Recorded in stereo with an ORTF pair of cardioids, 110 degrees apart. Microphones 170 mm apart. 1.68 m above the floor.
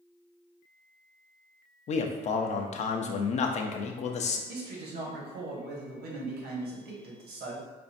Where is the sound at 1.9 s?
40° left, 0.6 m.